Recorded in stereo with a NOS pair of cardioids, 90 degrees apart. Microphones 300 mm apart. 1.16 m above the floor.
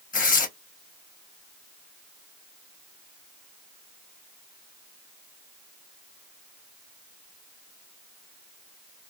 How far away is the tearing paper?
About 0.9 m.